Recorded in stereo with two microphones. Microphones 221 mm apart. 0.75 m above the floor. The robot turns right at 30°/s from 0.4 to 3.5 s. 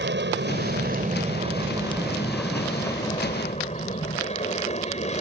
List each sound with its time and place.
0.0 s an aircraft: 60° right; by 5.2 s 35° left